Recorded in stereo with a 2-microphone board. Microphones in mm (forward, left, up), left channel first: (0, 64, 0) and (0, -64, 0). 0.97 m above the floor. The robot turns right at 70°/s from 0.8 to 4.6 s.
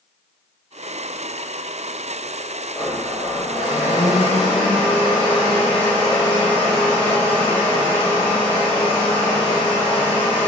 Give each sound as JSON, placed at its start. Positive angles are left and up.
{"t": 2.7, "sound": "a blender", "azimuth_deg": -5, "distance_m": 1.3}